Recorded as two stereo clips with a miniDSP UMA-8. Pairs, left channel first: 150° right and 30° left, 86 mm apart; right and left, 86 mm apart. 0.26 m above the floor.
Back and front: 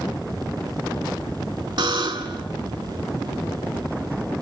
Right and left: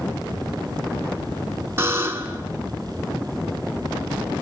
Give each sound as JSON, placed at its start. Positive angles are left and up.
{"t": 1.8, "sound": "a buzzer", "azimuth_deg": 30, "distance_m": 1.1}